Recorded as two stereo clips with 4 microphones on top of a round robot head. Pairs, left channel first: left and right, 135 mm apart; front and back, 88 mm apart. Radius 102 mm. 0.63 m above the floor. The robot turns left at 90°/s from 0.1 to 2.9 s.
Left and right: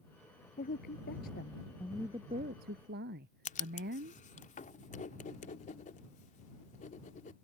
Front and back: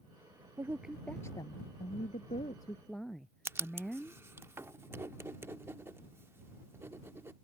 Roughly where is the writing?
Behind left.